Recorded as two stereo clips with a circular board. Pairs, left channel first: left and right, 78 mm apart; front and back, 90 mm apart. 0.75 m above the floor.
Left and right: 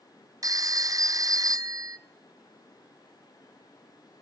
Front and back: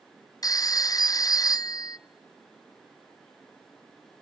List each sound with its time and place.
0.4 s a phone ringing: 45° right, 0.5 m